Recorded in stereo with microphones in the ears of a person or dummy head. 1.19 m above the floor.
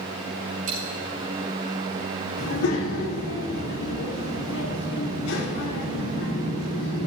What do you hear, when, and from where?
0.7 s a dropped coin: 45° right (ahead or behind), 4.5 m
2.4 s a child speaking: 65° left (ahead or behind), 1.8 m